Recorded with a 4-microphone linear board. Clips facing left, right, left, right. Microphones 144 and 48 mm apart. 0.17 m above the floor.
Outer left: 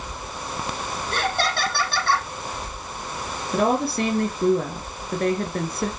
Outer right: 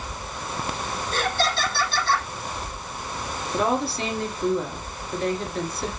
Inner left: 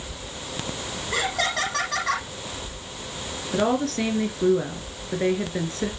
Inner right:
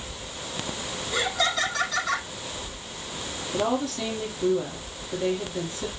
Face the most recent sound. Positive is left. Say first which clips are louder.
# outer left 3 dB, inner left 3 dB
turn(degrees=60)  # may be behind; listen again after turning